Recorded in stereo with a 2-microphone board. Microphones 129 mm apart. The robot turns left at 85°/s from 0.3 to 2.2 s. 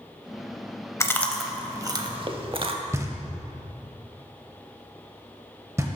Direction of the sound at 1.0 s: 25° left (ahead or behind).